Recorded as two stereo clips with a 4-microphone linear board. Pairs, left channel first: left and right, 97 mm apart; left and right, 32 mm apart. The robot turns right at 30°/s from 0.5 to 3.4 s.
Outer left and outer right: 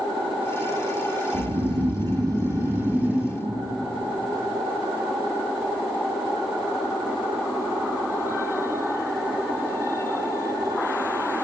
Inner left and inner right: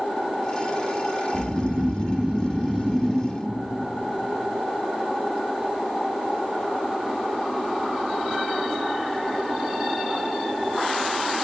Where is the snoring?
70° right, 0.6 m; by 3.4 s 5° right, 0.6 m.